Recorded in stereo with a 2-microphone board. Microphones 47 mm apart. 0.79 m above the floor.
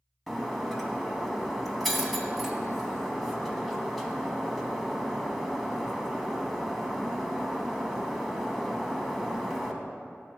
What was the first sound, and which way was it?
Breaking glass, 5° left (ahead or behind).